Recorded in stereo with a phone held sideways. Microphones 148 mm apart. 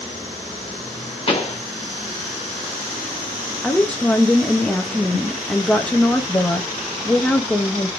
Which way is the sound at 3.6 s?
10° left (ahead or behind).